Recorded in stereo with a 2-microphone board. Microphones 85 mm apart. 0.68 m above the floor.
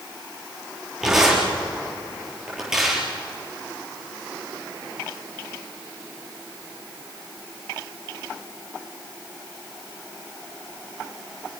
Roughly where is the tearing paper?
Centre.